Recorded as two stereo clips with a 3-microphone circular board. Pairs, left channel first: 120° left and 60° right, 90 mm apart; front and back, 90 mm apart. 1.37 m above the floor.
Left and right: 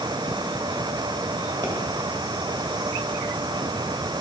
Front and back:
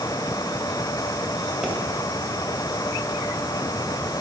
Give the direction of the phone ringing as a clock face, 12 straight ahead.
I don't hear a phone ringing.